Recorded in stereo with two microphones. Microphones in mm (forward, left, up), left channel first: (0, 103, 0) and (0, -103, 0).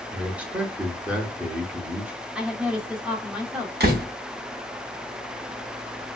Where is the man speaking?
5° right (ahead or behind), 0.8 m.